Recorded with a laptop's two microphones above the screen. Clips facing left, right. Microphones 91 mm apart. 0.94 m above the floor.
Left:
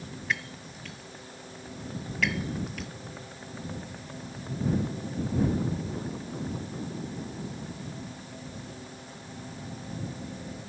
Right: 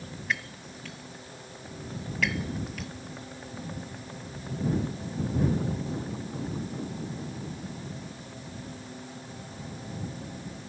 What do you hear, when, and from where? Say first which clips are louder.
0.3 s breaking glass: even; centre (ahead or behind)